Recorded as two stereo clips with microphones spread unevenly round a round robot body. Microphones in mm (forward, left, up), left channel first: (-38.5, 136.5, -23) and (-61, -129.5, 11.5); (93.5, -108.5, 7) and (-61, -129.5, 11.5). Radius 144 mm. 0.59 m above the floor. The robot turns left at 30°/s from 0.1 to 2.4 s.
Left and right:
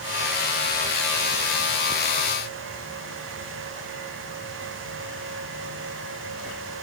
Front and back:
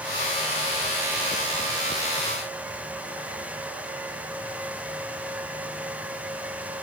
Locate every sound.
Only background noise.